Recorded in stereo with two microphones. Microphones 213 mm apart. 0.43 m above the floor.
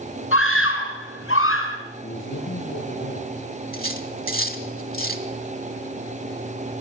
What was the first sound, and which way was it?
A scream, 75° left (ahead or behind).